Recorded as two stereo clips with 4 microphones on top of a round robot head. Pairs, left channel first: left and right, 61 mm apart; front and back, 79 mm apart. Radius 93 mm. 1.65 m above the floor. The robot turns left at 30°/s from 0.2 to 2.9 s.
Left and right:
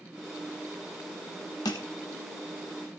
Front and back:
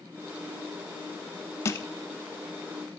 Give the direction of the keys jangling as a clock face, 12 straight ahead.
I don't hear keys jangling.